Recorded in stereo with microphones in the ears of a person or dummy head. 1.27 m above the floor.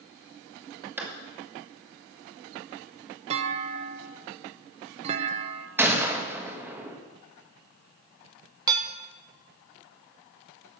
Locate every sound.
1.0 s a clap: 10° right (ahead or behind), 2.5 m
3.3 s a clunk: 35° right (ahead or behind), 0.7 m
5.8 s a gunshot: 10° right (ahead or behind), 1.6 m
8.7 s dishes clattering: 20° right (ahead or behind), 0.8 m